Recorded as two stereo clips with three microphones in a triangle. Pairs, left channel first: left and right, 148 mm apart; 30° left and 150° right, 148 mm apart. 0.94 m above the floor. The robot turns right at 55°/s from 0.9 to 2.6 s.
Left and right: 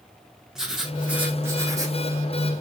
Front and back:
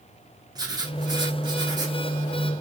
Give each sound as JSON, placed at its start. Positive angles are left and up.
{"t": 0.6, "sound": "writing", "azimuth_deg": -175, "distance_m": 0.9}